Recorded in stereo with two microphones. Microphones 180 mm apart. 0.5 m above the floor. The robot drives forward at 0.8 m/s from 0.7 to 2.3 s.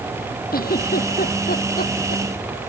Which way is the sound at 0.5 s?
55° left (ahead or behind).